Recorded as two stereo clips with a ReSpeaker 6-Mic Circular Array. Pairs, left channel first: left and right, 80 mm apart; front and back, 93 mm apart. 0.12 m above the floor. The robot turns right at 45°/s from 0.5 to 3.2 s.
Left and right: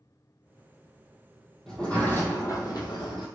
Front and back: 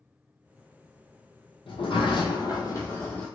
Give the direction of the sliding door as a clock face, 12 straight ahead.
12 o'clock.